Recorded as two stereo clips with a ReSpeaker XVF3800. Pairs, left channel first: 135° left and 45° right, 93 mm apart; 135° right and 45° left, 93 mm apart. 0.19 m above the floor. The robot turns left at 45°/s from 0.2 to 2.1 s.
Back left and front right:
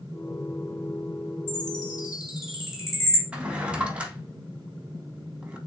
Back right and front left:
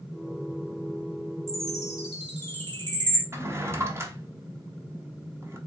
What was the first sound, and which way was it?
A chime, 105° left.